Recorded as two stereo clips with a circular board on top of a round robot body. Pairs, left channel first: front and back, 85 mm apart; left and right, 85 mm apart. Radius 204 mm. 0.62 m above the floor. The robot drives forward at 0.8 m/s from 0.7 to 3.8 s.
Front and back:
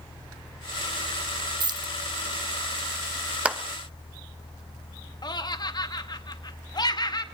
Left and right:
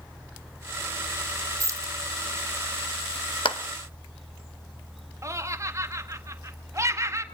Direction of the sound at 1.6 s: 140° right.